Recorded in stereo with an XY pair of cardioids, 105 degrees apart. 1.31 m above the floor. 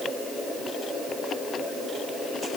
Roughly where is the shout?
No shout in this recording.